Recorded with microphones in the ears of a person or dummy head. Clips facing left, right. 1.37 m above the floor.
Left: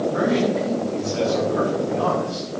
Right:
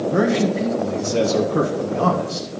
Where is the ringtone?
No ringtone in this recording.